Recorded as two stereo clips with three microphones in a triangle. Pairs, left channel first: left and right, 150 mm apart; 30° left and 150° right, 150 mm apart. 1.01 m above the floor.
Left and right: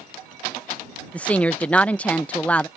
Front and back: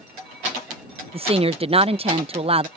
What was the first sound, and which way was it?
A woman speaking, 170° left.